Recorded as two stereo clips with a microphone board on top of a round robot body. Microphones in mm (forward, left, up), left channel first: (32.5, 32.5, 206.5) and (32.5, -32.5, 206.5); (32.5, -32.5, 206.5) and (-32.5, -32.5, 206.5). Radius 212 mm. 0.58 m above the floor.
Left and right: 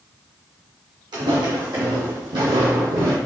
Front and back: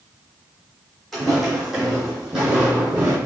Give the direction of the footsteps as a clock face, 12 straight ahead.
3 o'clock.